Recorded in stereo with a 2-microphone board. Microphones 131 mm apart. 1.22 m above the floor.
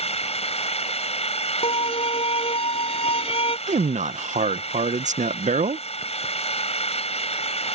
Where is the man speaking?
80° right.